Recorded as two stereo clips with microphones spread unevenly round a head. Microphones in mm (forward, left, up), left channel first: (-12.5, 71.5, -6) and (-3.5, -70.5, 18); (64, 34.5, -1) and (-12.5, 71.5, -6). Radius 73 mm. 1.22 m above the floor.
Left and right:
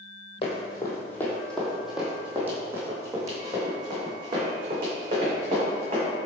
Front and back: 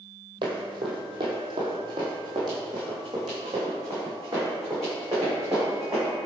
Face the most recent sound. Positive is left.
turn(degrees=-130)